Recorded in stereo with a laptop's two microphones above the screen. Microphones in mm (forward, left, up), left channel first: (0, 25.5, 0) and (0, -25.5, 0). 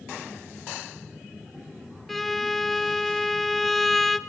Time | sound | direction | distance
2.1 | a violin | 5° left (ahead or behind) | 0.5 m